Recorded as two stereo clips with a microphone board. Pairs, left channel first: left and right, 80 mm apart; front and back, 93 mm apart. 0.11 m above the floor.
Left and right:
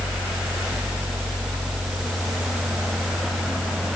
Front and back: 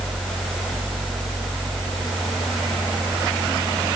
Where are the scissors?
I don't hear scissors.